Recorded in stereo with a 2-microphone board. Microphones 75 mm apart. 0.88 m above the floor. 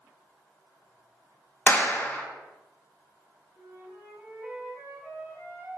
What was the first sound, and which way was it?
A clap, 30° left (ahead or behind).